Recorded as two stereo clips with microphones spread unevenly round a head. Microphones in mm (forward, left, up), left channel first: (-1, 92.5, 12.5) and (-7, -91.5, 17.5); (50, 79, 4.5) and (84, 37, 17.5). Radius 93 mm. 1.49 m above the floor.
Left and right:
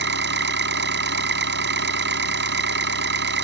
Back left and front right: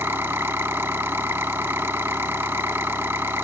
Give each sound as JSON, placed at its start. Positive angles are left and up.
{"t": 0.0, "sound": "an engine running", "azimuth_deg": -130}